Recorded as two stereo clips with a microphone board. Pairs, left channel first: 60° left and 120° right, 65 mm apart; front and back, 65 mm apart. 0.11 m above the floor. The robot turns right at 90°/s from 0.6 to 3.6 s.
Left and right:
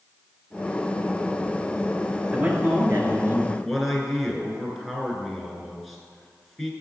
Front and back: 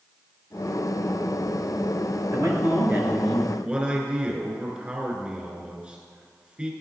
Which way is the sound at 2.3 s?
175° right.